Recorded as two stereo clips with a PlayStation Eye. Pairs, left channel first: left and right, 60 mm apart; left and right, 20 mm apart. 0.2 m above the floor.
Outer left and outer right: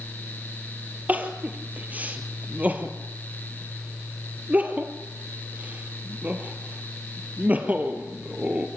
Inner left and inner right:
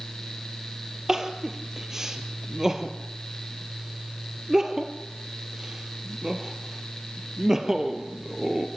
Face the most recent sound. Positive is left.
turn(degrees=-25)  # may be behind; listen again after turning